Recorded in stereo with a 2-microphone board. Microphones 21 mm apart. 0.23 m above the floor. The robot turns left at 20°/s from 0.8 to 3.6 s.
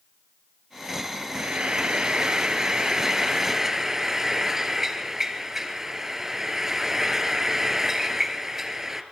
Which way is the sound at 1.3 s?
110° right.